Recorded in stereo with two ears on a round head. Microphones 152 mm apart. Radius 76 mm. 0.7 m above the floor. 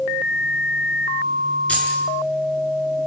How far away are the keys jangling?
About 7.5 m.